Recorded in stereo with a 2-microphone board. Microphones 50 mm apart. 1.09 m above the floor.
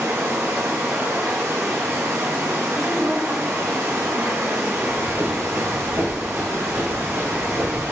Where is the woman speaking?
65° right (ahead or behind), 1.8 m.